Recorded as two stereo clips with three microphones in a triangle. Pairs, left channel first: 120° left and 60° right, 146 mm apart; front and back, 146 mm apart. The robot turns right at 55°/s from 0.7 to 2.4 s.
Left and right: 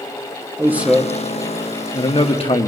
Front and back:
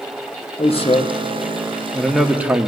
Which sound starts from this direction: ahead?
A man speaking, at 0.6 s.